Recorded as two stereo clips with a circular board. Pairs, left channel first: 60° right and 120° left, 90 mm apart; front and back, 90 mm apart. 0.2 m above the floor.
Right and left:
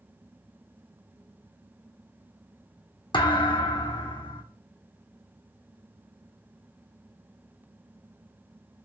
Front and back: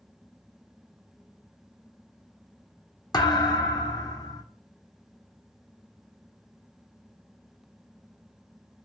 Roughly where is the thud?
Ahead right.